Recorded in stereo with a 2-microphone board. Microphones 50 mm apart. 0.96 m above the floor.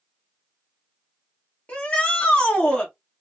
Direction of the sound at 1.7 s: 25° left (ahead or behind).